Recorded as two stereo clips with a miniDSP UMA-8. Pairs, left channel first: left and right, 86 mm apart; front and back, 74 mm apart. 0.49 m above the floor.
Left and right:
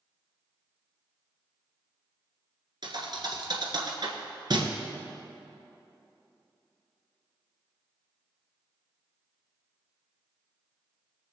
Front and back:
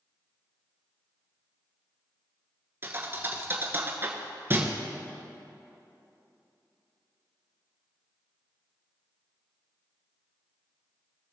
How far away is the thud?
About 1.5 m.